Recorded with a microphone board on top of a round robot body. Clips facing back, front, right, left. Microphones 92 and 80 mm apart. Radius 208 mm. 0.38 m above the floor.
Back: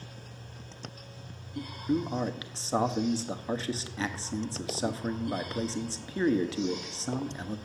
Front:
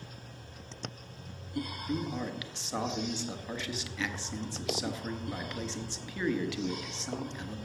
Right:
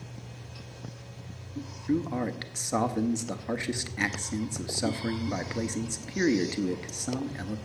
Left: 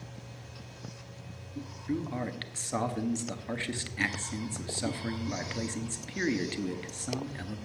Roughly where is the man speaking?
Behind right.